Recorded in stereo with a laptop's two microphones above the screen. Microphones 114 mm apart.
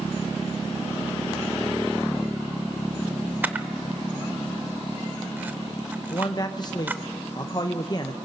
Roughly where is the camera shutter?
Centre.